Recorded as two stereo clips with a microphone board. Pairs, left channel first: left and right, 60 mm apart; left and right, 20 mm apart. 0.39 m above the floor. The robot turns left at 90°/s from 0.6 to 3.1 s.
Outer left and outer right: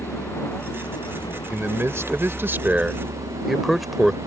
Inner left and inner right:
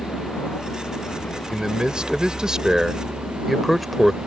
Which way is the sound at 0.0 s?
150° left.